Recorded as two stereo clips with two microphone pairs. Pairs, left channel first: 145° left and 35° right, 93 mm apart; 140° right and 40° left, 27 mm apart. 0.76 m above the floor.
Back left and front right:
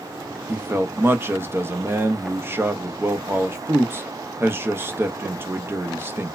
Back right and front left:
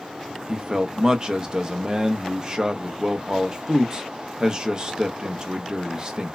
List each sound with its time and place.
0.5 s a man speaking: 5° left, 0.5 m